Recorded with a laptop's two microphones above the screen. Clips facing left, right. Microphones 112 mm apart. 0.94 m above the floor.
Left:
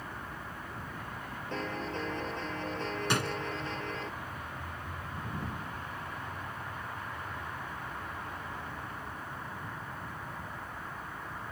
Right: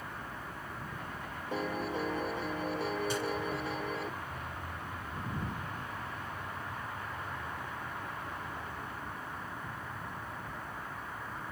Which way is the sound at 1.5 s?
10° right (ahead or behind).